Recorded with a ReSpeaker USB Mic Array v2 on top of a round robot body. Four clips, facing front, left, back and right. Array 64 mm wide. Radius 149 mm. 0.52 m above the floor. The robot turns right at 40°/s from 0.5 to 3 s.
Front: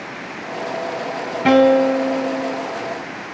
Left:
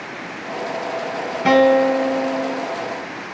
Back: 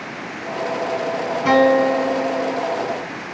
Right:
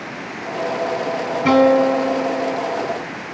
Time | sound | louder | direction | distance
1.4 | a guitar | even, front 2 dB | 15° left | 5.5 m